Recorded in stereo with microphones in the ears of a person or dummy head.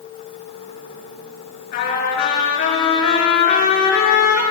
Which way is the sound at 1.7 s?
50° left (ahead or behind).